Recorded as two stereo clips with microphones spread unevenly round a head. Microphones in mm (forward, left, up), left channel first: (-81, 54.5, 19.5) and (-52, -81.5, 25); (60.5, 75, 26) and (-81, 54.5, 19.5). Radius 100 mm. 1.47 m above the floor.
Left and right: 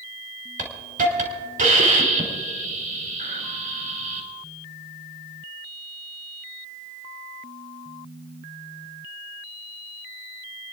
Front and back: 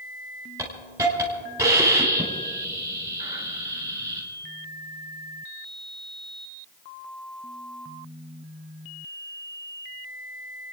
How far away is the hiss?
About 4 m.